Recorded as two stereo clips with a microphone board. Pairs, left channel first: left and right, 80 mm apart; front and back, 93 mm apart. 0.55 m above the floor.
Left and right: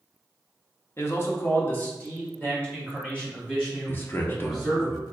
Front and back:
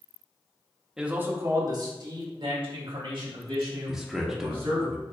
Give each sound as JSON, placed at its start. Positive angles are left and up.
{"t": 1.0, "sound": "a man speaking", "azimuth_deg": 100, "distance_m": 0.7}
{"t": 3.9, "sound": "a man speaking", "azimuth_deg": 100, "distance_m": 0.7}